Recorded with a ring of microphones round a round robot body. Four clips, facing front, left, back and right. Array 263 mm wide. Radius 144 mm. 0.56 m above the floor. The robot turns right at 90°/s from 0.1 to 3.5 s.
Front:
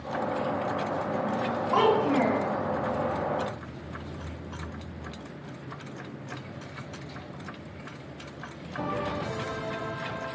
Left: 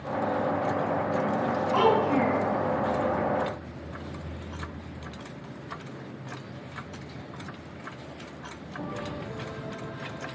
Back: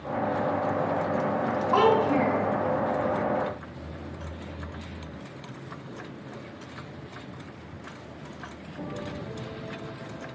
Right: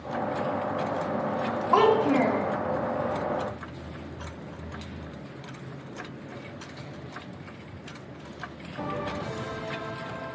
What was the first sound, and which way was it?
A child speaking, 90° right.